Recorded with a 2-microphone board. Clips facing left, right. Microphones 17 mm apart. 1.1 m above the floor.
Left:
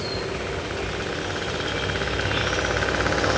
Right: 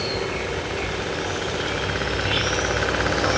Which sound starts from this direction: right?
An insect, at 0.0 s.